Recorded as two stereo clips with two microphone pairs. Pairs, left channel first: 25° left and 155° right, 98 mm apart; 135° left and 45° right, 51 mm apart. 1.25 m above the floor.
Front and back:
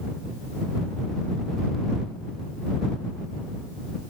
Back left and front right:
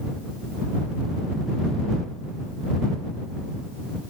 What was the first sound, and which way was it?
Only background noise.